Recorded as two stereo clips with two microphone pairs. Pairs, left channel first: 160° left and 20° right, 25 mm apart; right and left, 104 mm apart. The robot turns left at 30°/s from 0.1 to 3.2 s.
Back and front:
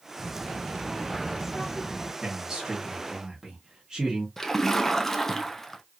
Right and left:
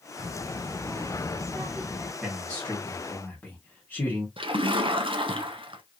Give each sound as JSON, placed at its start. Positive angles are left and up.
{"t": 0.2, "sound": "a child speaking", "azimuth_deg": -140, "distance_m": 1.7}
{"t": 2.2, "sound": "a man speaking", "azimuth_deg": -20, "distance_m": 1.3}
{"t": 4.4, "sound": "a splash", "azimuth_deg": 80, "distance_m": 0.5}